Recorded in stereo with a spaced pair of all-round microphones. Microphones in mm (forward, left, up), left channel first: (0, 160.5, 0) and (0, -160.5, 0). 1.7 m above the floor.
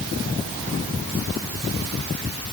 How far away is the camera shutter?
No camera shutter in this recording.